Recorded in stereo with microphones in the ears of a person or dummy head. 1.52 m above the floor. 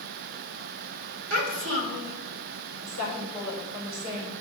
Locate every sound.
1.3 s a child speaking: 70° right (ahead or behind), 2.5 m
2.8 s a woman speaking: 80° right, 5.5 m